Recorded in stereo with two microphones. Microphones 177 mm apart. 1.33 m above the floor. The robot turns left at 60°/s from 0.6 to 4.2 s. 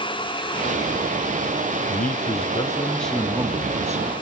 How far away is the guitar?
I don't hear a guitar.